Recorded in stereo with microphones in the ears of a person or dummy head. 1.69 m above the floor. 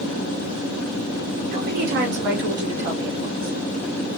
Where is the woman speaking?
45° right (ahead or behind), 0.9 m.